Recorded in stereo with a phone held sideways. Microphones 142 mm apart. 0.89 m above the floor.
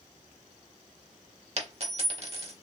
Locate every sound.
1.6 s a dropped coin: 45° right (ahead or behind), 0.9 m